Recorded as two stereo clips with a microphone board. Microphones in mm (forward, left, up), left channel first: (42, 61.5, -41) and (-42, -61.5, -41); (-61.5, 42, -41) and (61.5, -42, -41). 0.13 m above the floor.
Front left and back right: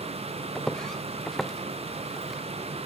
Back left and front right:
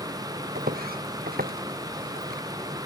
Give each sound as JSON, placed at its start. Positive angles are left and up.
{"t": 0.6, "sound": "footsteps", "azimuth_deg": -30}